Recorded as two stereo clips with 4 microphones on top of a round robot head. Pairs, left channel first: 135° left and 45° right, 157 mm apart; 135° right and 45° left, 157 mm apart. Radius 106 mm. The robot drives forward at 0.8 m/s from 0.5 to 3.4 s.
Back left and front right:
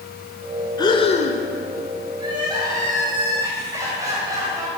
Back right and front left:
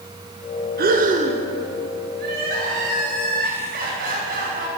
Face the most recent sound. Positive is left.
turn(degrees=25)